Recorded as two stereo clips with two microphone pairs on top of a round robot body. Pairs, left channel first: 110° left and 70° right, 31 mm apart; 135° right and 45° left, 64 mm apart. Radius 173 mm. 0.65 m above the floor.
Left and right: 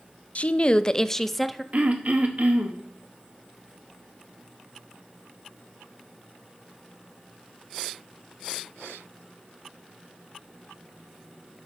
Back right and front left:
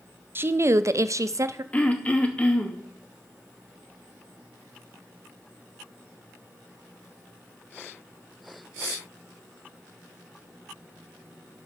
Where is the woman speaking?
85° left, 0.6 m; by 1.6 s 10° left, 0.8 m.